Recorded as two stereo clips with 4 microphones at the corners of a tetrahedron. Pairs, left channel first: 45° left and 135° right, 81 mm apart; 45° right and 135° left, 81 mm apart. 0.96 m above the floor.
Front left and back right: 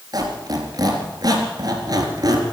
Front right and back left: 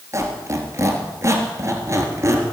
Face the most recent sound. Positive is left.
turn(degrees=-170)